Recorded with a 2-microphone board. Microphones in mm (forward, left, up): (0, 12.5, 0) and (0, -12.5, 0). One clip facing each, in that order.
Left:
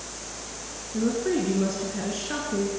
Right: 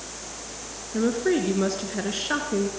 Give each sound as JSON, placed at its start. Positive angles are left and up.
{"t": 0.9, "sound": "a woman speaking", "side_deg": -35, "distance_m": 2.0}